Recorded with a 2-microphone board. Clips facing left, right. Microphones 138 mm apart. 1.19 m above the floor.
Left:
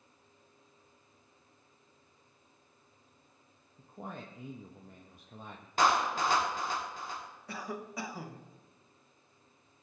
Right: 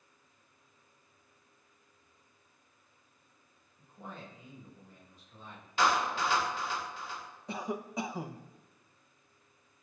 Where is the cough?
20° right (ahead or behind), 0.8 m.